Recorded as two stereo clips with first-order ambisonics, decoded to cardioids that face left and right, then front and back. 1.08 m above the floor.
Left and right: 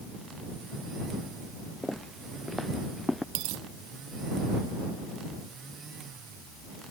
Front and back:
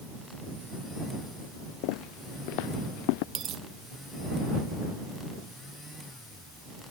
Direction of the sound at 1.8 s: Straight ahead.